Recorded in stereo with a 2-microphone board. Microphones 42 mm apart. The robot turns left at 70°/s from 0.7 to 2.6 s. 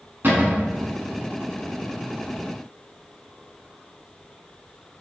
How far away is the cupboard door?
About 1.0 m.